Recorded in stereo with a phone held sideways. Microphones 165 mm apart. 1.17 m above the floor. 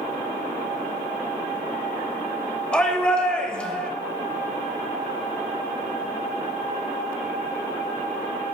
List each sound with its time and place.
2.7 s a shout: 5° left (ahead or behind), 2.5 m